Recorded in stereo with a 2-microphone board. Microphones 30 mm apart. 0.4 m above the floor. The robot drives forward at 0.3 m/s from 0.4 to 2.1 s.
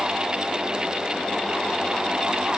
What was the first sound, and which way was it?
Only background noise.